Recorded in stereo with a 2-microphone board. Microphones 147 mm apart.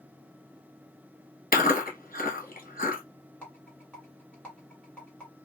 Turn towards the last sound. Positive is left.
turn(degrees=5)  # may be behind; listen again after turning